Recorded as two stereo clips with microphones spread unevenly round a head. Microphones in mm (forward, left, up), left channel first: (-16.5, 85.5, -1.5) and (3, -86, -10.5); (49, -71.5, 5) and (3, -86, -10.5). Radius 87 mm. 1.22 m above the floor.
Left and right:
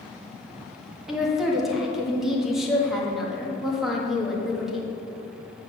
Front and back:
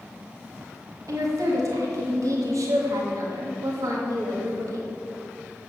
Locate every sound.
1.1 s a woman speaking: 170° right, 1.5 m